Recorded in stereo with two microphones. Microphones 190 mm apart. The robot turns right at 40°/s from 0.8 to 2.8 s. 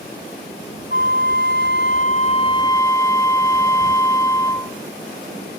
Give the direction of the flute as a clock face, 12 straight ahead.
9 o'clock.